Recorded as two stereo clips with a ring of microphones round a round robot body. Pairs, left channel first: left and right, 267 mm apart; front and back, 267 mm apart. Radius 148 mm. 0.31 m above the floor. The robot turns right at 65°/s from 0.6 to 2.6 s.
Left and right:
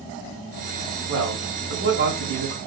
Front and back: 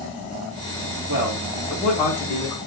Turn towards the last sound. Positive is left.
turn(degrees=-40)